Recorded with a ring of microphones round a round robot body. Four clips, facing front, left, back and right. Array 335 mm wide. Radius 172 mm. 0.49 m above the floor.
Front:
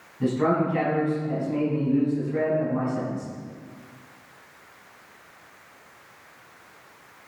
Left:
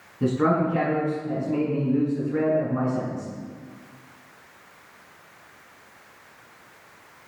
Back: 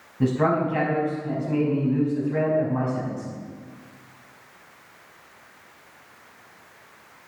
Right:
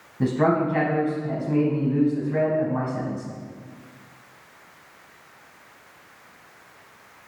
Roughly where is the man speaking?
Behind right.